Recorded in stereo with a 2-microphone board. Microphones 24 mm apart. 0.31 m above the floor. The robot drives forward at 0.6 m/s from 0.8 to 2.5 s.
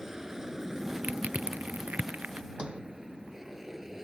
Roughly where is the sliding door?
Right.